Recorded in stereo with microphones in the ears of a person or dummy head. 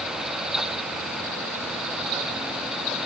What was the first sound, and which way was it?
Only background noise.